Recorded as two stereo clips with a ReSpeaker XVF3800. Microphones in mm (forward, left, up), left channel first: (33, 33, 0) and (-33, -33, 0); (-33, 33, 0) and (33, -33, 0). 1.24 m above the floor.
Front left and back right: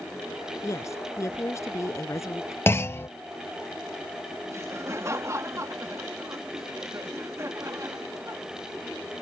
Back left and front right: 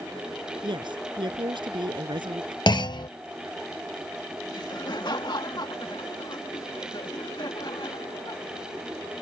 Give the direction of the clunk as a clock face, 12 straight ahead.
8 o'clock.